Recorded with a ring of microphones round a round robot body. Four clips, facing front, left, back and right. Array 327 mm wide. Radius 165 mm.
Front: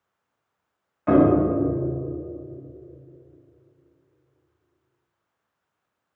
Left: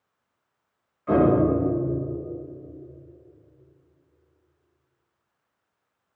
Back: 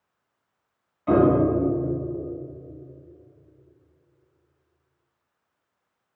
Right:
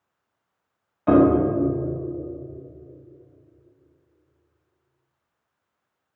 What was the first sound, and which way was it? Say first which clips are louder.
A piano: right 3 dB, front 1 dB; 70° right.